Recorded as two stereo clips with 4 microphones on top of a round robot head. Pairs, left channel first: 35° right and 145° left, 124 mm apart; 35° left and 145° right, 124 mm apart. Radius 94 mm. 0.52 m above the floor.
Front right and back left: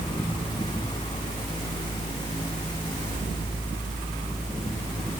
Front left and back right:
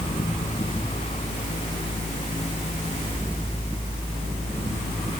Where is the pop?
No pop in this recording.